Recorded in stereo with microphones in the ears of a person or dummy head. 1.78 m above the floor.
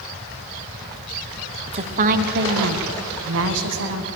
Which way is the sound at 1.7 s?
30° right (ahead or behind).